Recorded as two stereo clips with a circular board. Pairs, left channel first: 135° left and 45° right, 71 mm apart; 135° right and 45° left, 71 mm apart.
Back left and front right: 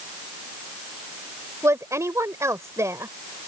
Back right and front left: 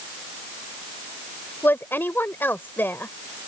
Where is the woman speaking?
80° right.